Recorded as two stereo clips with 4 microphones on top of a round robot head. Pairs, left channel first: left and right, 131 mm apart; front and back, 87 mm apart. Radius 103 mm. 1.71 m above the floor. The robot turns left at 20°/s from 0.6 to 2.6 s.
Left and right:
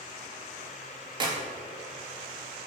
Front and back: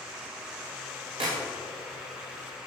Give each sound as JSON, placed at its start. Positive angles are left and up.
{"t": 1.2, "sound": "a clap", "azimuth_deg": -145, "distance_m": 3.0}